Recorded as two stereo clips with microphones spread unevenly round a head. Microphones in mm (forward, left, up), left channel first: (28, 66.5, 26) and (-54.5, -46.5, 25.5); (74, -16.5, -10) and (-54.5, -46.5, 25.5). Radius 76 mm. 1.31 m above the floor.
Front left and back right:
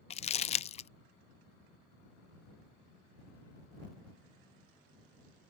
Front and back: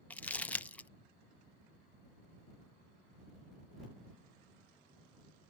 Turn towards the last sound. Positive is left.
turn(degrees=75)